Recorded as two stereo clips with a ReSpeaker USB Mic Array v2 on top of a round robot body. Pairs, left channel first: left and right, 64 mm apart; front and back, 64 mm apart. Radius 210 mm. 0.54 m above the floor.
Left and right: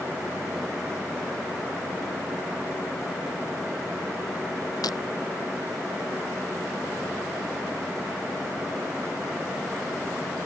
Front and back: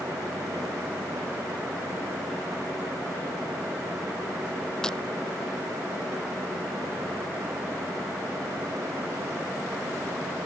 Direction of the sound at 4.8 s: 80° left.